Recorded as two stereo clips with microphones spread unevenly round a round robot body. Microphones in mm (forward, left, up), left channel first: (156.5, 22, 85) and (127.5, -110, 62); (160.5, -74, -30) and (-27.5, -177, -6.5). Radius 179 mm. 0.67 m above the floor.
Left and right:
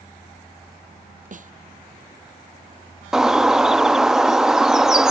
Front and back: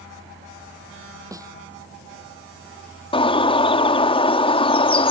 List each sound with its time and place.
1.3 s a snare drum: 75° right
3.1 s a bird: 25° right